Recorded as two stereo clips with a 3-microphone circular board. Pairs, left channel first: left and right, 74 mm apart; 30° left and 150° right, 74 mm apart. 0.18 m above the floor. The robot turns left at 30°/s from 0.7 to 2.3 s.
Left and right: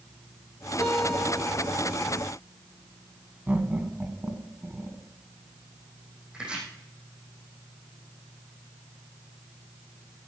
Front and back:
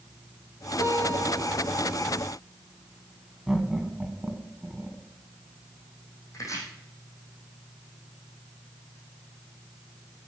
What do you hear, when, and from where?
0.8 s a guitar: 20° right, 5 m; by 1.8 s 50° right, 5 m
3.5 s laughter: 75° right, 1.2 m
6.3 s chopping: 15° right, 4.5 m